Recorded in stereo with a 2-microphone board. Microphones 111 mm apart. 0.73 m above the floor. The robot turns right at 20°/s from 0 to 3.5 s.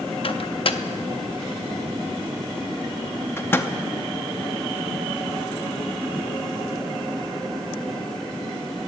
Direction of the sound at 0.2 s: 55° left (ahead or behind).